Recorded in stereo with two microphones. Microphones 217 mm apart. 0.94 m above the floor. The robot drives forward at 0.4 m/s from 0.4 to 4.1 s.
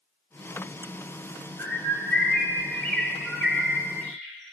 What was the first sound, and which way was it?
A bird, 5° left (ahead or behind).